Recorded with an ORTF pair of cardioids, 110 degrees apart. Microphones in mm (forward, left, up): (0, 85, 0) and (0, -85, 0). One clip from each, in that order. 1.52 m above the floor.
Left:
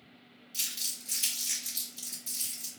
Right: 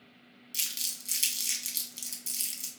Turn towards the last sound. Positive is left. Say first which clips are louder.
# right 1 dB
turn(degrees=-55)